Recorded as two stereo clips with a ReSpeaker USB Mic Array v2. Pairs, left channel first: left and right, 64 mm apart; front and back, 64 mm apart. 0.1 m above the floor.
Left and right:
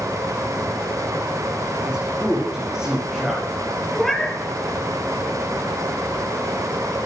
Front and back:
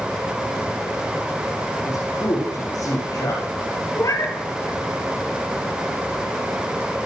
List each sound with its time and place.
1.9 s a man speaking: 10° right, 7 m
4.0 s a cat meowing: 5° left, 1.3 m